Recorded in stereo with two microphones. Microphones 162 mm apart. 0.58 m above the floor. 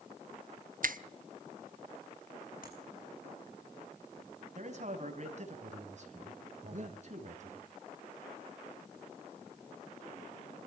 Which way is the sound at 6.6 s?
50° right (ahead or behind).